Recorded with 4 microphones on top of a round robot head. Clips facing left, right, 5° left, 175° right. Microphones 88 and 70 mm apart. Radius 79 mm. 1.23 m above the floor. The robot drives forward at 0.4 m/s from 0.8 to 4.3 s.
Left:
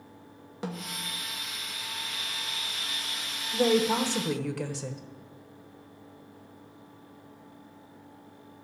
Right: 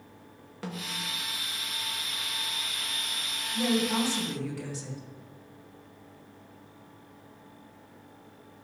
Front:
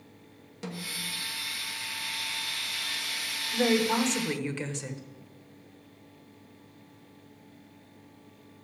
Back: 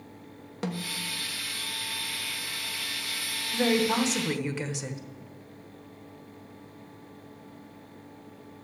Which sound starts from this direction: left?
A woman speaking, at 3.5 s.